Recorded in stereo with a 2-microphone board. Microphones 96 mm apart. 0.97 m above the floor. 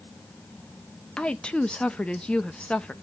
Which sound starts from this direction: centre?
A woman speaking, at 1.2 s.